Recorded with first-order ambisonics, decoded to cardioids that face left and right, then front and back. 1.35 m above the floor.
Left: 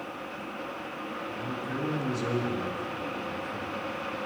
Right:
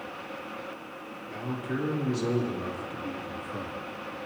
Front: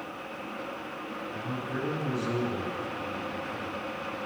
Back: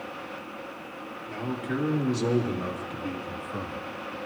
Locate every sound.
1.3 s a man speaking: straight behind, 3 m; by 3.8 s 160° right, 2 m